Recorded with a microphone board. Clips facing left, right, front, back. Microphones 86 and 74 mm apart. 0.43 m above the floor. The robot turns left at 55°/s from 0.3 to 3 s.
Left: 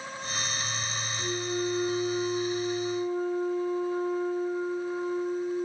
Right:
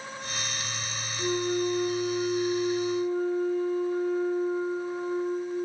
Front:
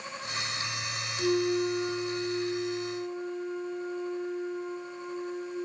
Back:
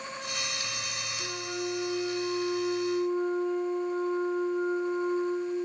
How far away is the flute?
About 6 m.